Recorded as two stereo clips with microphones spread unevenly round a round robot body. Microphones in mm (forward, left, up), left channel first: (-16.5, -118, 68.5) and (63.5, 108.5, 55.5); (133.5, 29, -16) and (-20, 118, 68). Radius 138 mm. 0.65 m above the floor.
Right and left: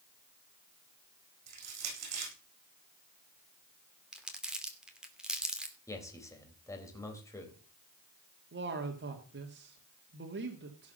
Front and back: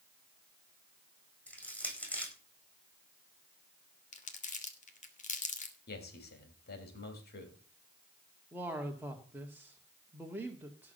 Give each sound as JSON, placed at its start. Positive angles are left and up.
{"t": 1.5, "sound": "crushing", "azimuth_deg": 55, "distance_m": 8.5}
{"t": 4.1, "sound": "crumpling", "azimuth_deg": -15, "distance_m": 2.5}
{"t": 5.9, "sound": "a man speaking", "azimuth_deg": -30, "distance_m": 3.5}
{"t": 8.5, "sound": "a man speaking", "azimuth_deg": 55, "distance_m": 1.8}